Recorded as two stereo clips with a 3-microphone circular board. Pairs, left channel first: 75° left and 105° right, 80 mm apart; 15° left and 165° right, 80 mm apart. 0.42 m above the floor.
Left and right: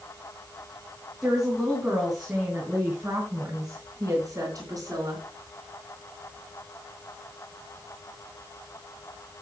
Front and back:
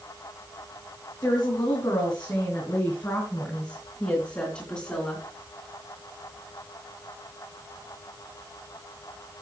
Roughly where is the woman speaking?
Ahead.